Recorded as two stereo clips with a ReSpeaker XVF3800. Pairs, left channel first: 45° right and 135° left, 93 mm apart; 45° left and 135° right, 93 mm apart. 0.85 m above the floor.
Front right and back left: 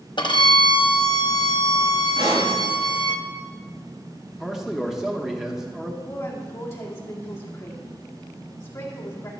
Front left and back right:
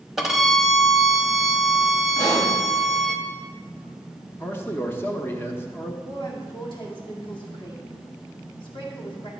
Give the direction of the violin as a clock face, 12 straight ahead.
2 o'clock.